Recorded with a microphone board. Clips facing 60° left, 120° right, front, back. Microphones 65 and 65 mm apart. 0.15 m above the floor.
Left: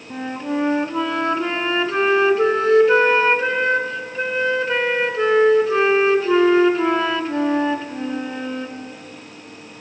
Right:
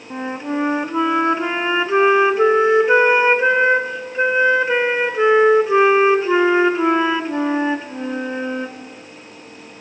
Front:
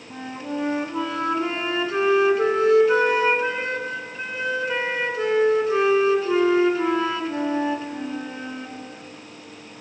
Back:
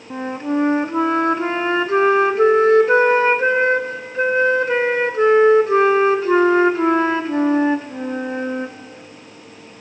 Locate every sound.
0.1 s a flute: straight behind, 0.6 m